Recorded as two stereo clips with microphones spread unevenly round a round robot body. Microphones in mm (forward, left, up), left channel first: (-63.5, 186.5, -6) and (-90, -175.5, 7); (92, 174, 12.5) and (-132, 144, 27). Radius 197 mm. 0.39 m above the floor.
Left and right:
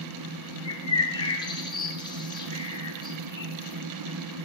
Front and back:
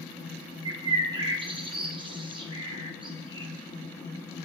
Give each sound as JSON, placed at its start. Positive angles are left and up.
{"t": 0.7, "sound": "a bird", "azimuth_deg": 140, "distance_m": 1.4}